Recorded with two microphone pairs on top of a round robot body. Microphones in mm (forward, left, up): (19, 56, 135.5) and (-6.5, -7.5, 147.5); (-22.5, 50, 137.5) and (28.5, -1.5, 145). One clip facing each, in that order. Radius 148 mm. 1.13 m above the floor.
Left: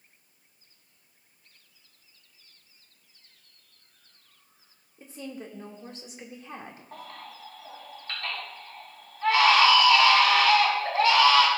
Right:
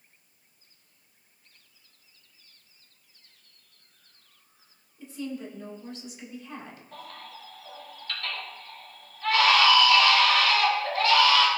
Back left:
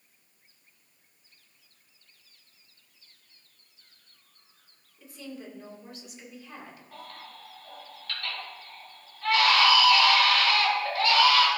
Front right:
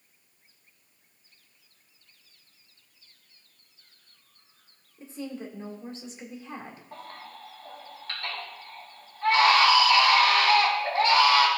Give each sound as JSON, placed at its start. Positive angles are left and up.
{"t": 5.0, "sound": "a woman speaking", "azimuth_deg": 15, "distance_m": 1.9}
{"t": 6.9, "sound": "a baby crying", "azimuth_deg": 20, "distance_m": 3.5}